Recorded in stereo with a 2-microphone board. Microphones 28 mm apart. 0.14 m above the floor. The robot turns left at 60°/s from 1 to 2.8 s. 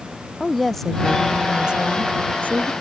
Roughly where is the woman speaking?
Ahead.